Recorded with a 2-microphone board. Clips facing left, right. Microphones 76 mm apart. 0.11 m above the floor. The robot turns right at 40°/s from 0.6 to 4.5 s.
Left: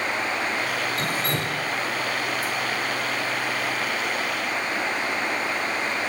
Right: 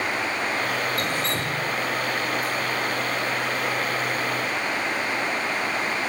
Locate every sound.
1.0 s dripping: 30° left (ahead or behind), 1.8 m; by 2.5 s 85° left, 1.8 m